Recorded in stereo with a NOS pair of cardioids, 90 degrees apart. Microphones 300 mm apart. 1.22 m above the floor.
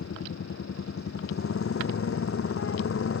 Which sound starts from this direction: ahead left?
A motorcycle, at 0.0 s.